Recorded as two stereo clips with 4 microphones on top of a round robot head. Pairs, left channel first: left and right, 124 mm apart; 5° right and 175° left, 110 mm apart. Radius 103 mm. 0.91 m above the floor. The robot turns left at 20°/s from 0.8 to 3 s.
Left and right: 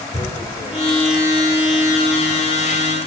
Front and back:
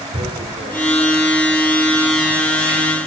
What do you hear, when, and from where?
0.1 s tearing paper: 155° left, 1.7 m; by 2.8 s 110° left, 1.7 m